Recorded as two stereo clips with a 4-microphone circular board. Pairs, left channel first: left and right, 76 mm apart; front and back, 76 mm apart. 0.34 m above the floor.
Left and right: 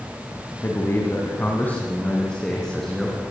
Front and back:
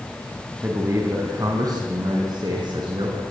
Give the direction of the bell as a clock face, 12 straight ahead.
I don't hear a bell.